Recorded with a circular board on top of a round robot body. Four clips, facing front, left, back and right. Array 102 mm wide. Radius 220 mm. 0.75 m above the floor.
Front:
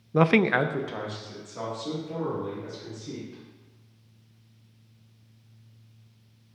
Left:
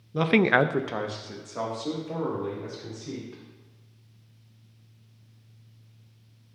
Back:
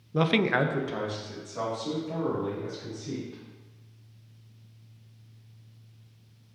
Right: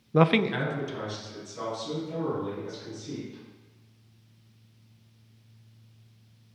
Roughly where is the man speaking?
Ahead right.